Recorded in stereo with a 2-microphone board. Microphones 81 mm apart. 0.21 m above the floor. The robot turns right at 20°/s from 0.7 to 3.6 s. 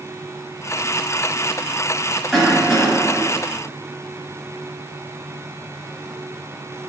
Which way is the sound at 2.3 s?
Centre (ahead or behind).